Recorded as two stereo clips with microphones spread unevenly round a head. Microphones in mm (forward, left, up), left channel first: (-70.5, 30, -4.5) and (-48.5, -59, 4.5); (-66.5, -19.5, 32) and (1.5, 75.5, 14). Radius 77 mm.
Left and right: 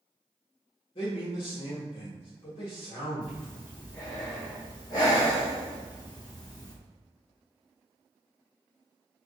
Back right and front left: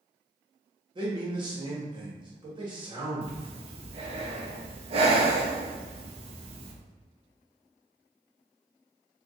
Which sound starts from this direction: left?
A man speaking, at 0.9 s.